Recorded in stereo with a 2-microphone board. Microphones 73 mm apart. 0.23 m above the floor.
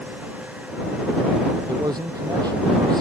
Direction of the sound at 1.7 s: 70° right (ahead or behind).